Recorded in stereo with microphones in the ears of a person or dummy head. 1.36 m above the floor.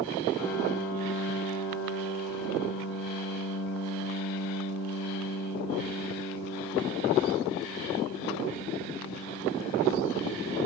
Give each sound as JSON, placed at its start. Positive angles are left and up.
{"t": 0.4, "sound": "a piano", "side_deg": 55, "distance_m": 1.1}